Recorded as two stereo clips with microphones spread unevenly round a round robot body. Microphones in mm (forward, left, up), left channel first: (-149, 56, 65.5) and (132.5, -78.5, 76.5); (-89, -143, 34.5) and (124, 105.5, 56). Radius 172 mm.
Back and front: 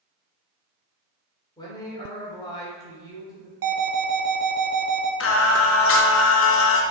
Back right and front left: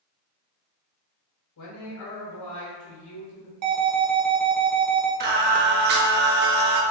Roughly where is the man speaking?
Behind right.